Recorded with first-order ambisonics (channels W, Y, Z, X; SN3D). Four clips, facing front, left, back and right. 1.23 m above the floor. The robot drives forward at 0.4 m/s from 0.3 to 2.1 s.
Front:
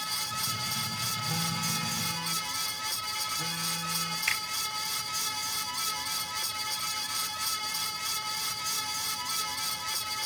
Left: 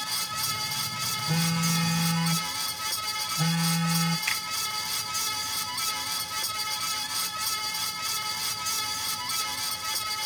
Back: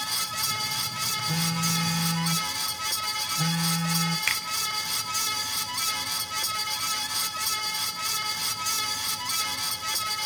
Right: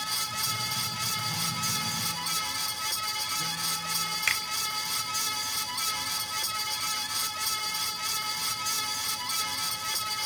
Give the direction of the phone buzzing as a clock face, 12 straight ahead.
8 o'clock.